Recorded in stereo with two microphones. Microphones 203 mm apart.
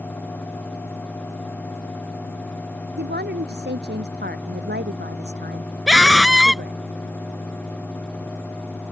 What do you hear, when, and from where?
3.0 s a woman speaking: 60° right (ahead or behind)
5.9 s a scream: centre (ahead or behind)